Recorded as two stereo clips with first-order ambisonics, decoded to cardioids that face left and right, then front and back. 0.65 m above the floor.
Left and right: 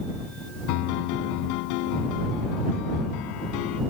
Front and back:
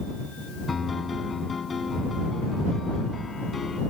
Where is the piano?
75° left.